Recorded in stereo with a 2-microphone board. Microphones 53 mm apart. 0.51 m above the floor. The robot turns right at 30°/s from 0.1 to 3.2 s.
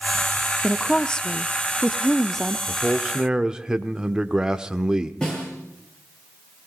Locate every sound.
0.6 s a woman speaking: 15° left (ahead or behind), 0.6 m; by 2.6 s 5° left (ahead or behind), 0.6 m
2.7 s a man speaking: 25° right (ahead or behind), 1.0 m; by 5.1 s 15° right (ahead or behind), 1.0 m
5.2 s a snare drum: 15° left (ahead or behind), 7.5 m